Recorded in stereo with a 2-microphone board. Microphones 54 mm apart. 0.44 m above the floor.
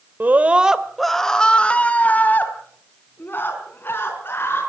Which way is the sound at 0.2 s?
35° right (ahead or behind).